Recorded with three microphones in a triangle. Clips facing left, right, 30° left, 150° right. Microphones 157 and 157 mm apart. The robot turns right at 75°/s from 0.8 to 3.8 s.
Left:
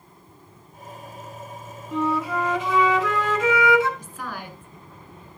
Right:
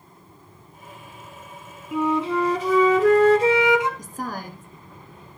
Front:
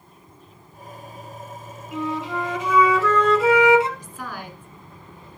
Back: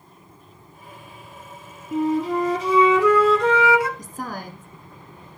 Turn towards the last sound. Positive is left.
turn(degrees=-120)